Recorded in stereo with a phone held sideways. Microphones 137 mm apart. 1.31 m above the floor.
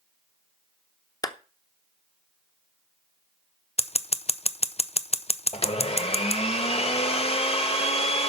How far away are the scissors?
About 0.5 m.